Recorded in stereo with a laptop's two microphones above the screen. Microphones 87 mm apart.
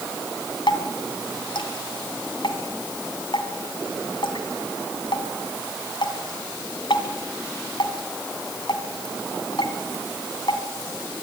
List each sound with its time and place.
0.7 s dripping: 75° left (ahead or behind), 2.5 m